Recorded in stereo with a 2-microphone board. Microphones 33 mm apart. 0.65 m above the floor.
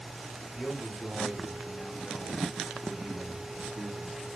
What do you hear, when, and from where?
0.6 s a man speaking: 30° left (ahead or behind), 1.7 m; by 4.3 s 35° right (ahead or behind), 1.1 m